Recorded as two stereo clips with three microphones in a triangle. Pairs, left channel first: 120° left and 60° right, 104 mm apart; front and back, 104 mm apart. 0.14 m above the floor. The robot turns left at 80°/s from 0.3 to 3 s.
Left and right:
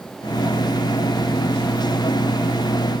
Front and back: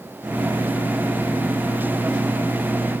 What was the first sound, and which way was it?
Only background noise.